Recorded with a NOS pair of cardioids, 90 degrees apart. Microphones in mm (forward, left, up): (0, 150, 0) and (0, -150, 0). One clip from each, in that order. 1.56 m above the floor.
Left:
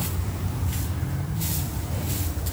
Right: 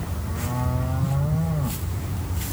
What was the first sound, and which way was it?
Only background noise.